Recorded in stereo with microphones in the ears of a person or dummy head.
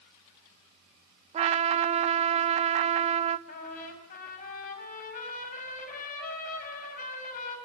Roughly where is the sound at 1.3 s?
Right.